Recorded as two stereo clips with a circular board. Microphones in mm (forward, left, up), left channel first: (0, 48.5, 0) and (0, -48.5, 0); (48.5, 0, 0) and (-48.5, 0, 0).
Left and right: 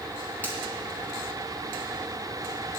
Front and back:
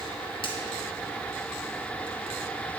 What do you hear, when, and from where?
0.4 s a finger snap: 20° left, 2 m